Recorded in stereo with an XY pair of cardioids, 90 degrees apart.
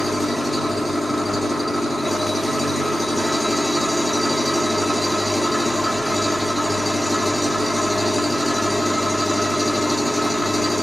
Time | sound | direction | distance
0.0 | an engine running | straight ahead | 1.1 m